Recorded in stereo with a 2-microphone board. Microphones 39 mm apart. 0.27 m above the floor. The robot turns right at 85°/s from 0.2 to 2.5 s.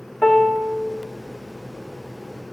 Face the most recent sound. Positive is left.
turn(degrees=-15)